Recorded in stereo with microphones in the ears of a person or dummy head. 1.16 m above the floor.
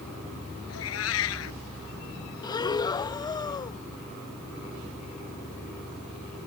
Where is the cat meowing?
85° left.